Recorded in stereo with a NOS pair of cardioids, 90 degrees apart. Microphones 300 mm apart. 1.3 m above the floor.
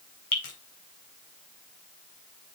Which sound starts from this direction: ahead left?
Dripping, at 0.3 s.